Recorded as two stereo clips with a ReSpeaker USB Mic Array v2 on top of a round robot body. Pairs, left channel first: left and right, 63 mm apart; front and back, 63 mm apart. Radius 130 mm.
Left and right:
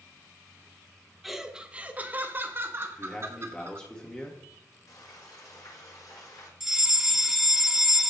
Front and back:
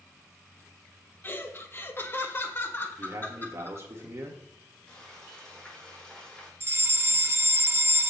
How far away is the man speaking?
About 1.6 m.